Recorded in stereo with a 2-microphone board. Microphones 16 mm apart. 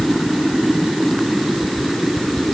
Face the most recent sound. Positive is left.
No sound to turn to.